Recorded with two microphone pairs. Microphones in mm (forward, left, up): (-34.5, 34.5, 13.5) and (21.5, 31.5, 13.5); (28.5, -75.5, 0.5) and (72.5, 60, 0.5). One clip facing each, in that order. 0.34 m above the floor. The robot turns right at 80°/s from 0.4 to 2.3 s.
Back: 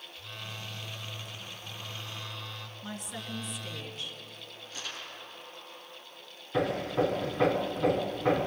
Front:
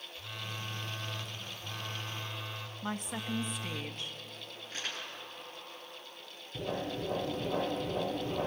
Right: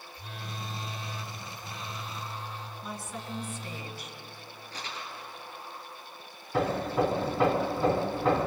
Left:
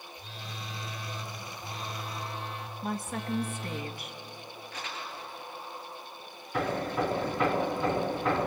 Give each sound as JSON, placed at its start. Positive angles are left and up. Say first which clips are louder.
{"t": 0.1, "sound": "a phone buzzing", "louder": "front 1 dB, right 4 dB", "azimuth_deg": -90, "distance_m": 2.0}
{"t": 2.8, "sound": "a woman speaking", "louder": "front 4 dB, left 7 dB", "azimuth_deg": 40, "distance_m": 2.5}
{"t": 4.7, "sound": "crumpling", "louder": "front 1 dB, even", "azimuth_deg": -55, "distance_m": 6.0}
{"t": 6.5, "sound": "hammering", "louder": "back 8 dB, right 3 dB", "azimuth_deg": -170, "distance_m": 3.0}